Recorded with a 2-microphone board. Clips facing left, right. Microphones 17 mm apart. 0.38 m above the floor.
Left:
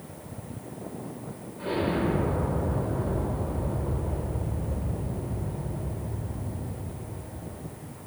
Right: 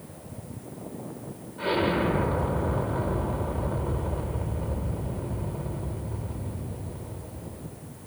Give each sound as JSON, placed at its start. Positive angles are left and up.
{"t": 1.6, "sound": "an explosion", "side_deg": -35, "distance_m": 0.8}